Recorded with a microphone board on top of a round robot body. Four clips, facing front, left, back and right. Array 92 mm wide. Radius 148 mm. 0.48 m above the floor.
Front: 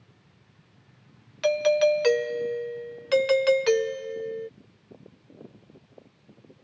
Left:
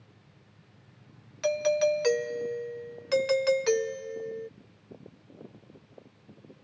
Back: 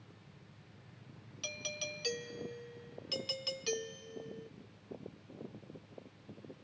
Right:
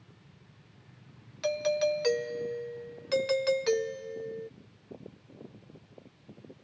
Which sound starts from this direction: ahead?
A doorbell, at 1.4 s.